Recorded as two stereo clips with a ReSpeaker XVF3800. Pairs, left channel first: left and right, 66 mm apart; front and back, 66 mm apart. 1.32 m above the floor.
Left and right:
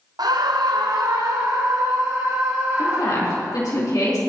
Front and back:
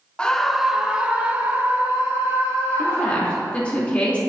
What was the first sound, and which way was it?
A scream, 75° right.